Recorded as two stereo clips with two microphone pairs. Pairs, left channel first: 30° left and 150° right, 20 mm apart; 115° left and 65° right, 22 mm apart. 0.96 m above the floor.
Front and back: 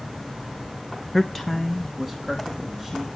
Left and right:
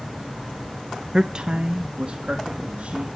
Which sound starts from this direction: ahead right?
A man speaking, at 1.1 s.